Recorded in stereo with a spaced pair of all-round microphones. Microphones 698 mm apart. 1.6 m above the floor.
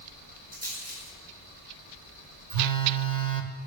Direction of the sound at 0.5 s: 85° right.